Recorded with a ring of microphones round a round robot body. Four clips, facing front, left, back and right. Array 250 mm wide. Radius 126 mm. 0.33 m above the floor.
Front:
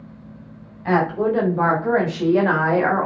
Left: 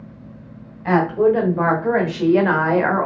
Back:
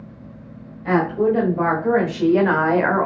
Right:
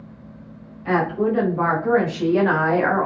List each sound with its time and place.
0.8 s a woman speaking: 65° left, 1.6 m; by 3.1 s 155° left, 1.2 m